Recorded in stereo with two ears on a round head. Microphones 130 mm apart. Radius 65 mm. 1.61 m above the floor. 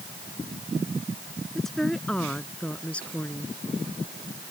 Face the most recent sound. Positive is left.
turn(degrees=10)  # may be behind; listen again after turning